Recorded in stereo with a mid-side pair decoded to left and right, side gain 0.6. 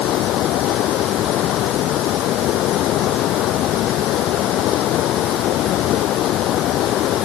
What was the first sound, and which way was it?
Running water, 60° left.